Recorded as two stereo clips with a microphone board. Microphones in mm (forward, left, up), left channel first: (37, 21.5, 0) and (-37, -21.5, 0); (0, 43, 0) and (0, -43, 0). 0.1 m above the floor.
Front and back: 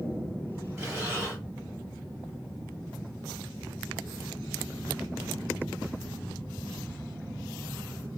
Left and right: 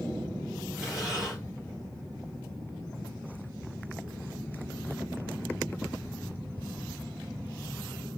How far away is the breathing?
About 2.0 m.